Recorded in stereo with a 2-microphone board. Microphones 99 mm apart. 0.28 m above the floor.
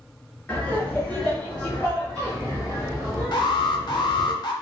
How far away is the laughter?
About 1.3 m.